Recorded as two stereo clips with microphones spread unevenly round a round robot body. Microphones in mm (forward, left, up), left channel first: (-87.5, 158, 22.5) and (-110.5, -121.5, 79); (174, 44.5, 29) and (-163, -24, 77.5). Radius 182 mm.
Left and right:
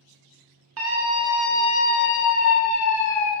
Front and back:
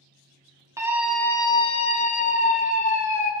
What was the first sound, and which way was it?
A scream, 80° right.